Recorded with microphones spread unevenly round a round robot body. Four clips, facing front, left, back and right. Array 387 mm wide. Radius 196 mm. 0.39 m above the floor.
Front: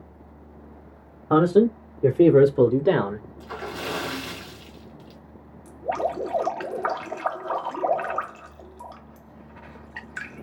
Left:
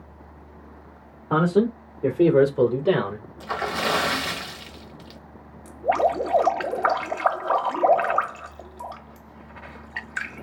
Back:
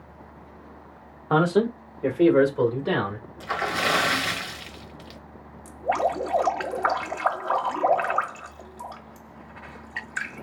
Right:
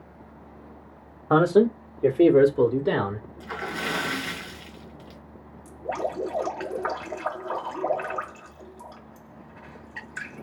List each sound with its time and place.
1.3 s a man speaking: 60° right, 1.6 m; by 3.3 s 20° left, 2 m
3.4 s a splash: 130° left, 1.4 m
5.7 s dripping: 105° left, 1.6 m